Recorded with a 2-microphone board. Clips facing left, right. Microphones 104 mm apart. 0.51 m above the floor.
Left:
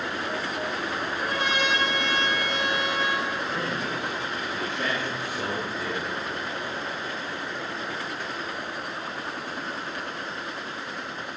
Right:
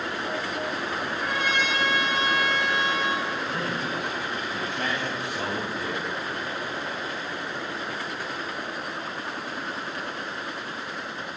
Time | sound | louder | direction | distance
1.0 | a trumpet | even | 45° left (ahead or behind) | 1.3 m
3.5 | a man speaking | even | 80° right | 3 m